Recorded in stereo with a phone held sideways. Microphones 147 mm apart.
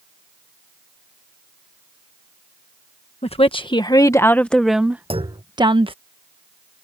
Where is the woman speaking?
45° left (ahead or behind); by 5.9 s 40° right (ahead or behind).